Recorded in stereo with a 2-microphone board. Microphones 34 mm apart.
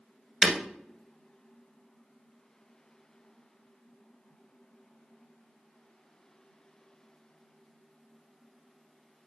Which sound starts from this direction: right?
Breaking glass, at 0.4 s.